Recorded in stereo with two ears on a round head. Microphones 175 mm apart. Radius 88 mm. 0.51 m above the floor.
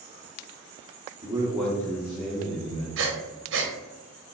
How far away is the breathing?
About 0.8 m.